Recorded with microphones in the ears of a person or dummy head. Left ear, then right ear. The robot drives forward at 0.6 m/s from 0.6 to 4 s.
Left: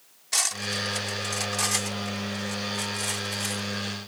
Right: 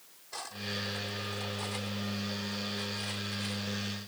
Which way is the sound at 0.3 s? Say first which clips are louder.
Left 11 dB; 70° left (ahead or behind).